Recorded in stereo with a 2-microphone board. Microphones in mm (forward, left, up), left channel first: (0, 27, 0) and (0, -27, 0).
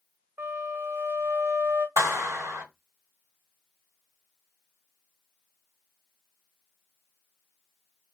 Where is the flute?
55° right (ahead or behind), 0.7 m.